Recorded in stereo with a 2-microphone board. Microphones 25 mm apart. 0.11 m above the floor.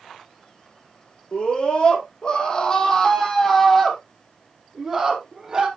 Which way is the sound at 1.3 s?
40° left (ahead or behind).